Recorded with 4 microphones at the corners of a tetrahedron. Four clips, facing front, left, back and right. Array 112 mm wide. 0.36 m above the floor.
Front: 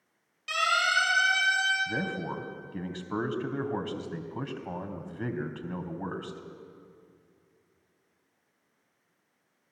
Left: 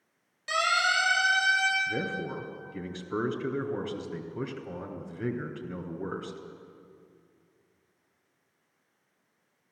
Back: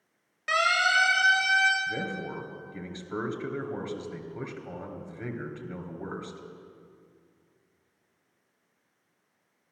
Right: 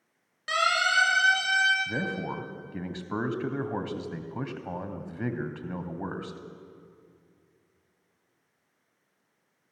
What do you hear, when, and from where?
0.5 s a siren: 150° right, 6.5 m; by 1.8 s 140° right, 6 m
1.9 s a man speaking: 60° right, 2.5 m